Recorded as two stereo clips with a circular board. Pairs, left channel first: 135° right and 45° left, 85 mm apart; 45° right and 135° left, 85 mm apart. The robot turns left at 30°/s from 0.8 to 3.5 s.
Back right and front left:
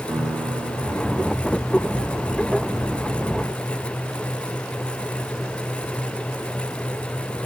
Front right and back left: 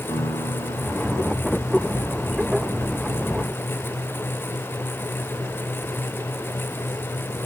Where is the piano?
25° right, 5 m; by 1.4 s 45° right, 5 m.